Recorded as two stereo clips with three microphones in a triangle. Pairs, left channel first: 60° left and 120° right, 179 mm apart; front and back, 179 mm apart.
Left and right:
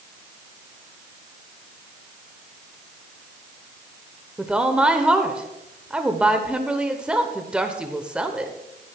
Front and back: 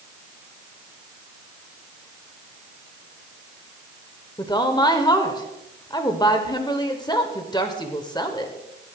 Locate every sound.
4.4 s a woman speaking: 40° right, 1.1 m